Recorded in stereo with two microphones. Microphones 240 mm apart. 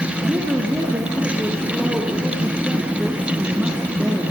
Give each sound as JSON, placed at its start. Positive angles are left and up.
{"t": 0.2, "sound": "a woman speaking", "side_deg": -10, "distance_m": 2.5}